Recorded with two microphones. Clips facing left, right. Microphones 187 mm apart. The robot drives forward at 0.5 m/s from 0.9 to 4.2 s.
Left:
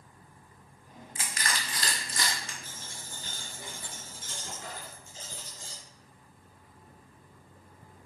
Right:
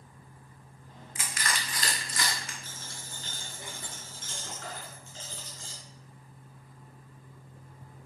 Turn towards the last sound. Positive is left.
turn(degrees=15)  # may be behind; listen again after turning